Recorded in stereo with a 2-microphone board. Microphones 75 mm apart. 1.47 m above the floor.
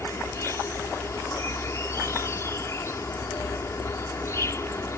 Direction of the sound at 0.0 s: 40° left (ahead or behind).